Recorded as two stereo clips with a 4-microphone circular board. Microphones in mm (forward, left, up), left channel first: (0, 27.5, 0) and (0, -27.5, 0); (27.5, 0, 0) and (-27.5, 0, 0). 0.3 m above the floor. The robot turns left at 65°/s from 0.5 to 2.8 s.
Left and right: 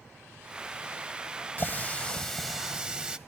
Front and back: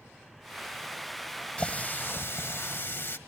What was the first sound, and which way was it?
A running tap, 50° left.